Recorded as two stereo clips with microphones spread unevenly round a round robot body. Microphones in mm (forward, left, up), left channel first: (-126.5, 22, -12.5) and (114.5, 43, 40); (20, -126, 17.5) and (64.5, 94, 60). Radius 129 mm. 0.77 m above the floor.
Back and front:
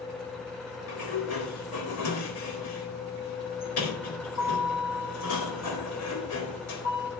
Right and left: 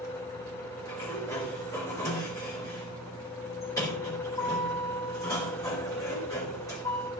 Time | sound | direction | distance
0.9 | a sliding door | 175° right | 4 m